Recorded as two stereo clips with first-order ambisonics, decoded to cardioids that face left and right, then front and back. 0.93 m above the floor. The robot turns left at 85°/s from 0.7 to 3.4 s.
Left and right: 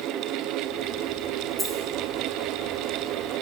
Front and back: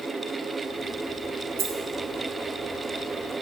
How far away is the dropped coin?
About 1.0 m.